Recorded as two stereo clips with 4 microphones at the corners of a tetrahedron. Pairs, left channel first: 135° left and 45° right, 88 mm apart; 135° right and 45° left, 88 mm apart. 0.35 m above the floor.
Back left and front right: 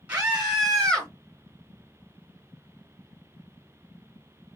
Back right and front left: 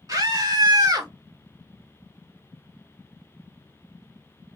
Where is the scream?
20° left, 1.2 m; by 1.1 s 60° left, 1.1 m.